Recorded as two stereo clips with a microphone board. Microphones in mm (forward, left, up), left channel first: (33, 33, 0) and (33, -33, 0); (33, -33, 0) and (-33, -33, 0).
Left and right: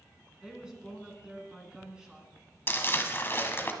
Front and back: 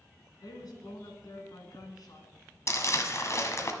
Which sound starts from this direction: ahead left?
Crumpling, at 2.7 s.